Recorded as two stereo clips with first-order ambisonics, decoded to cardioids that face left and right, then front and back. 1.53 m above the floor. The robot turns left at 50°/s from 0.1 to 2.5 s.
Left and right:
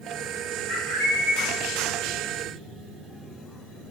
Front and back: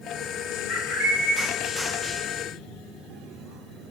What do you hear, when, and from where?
0.7 s a bird: 65° left, 1.1 m; by 1.5 s 25° left, 1.1 m